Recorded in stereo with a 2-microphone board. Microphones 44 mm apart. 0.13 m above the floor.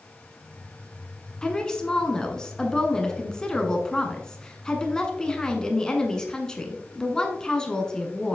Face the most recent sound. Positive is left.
turn(degrees=20)  # may be behind; listen again after turning